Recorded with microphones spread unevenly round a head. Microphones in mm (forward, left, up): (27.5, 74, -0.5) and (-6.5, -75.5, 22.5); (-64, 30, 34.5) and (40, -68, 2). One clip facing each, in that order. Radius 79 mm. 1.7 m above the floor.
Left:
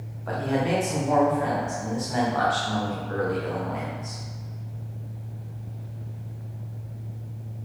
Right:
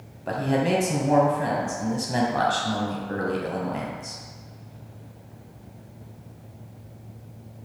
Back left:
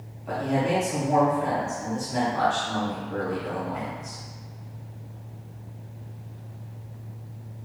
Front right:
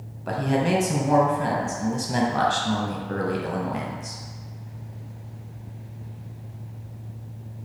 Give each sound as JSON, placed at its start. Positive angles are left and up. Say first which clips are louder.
{"t": 0.3, "sound": "a man speaking", "louder": "right 2 dB, front right 2 dB", "azimuth_deg": -45, "distance_m": 0.9}